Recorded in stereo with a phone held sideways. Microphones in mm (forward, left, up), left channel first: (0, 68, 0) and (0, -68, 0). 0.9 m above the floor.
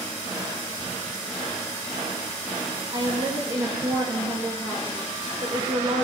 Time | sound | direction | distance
2.9 | a woman speaking | 40° right (ahead or behind) | 1.2 m